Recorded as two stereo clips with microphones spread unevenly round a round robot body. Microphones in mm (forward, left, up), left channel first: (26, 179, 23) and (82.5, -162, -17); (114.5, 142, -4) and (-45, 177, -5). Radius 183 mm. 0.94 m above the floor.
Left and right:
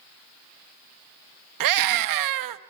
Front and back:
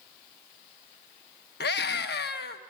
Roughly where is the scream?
Ahead right.